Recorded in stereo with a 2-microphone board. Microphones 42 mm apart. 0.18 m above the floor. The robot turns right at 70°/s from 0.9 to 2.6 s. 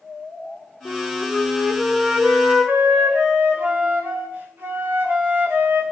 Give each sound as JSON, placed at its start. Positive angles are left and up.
{"t": 0.8, "sound": "a flute", "azimuth_deg": 115, "distance_m": 4.0}